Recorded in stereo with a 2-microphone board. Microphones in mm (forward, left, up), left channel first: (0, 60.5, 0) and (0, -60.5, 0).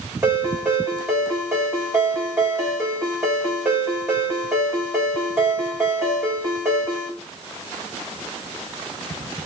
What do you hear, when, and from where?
0.2 s a ringtone: 20° right (ahead or behind), 6 m